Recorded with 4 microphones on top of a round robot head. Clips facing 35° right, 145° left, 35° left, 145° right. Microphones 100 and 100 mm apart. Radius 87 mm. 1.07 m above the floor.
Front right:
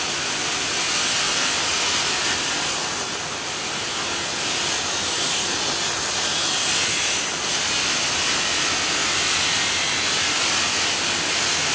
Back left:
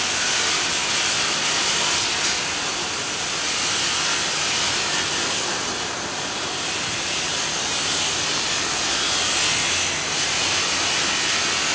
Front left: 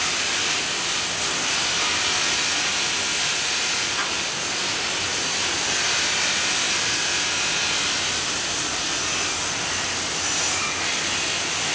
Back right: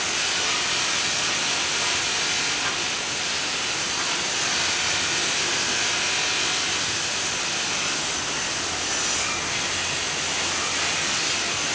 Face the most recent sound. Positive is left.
No sound to turn to.